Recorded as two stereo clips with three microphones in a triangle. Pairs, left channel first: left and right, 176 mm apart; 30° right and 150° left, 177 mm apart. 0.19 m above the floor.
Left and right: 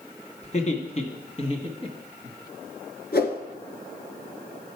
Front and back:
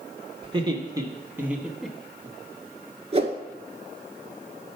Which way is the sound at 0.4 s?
105° left.